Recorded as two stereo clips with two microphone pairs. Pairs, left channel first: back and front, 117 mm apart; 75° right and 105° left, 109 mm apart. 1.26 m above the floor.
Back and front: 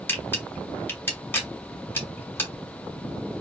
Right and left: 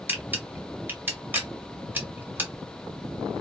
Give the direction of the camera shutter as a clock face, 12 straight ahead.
7 o'clock.